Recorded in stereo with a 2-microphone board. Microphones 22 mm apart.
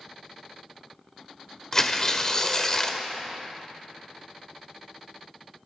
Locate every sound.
1.7 s tearing paper: 30° left (ahead or behind), 0.9 m